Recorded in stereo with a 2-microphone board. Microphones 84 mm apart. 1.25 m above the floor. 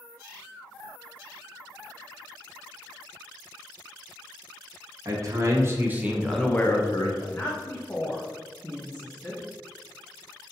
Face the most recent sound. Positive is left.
turn(degrees=20)  # may be behind; listen again after turning